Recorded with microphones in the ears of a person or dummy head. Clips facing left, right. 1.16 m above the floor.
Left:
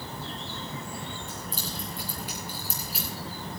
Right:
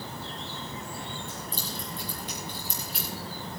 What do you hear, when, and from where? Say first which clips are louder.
1.3 s keys jangling: even; 15° left (ahead or behind), 9 m; by 3.1 s 5° left (ahead or behind), 9 m